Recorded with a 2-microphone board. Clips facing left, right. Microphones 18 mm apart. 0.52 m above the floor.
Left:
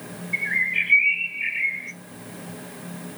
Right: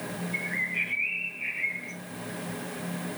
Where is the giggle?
I don't hear a giggle.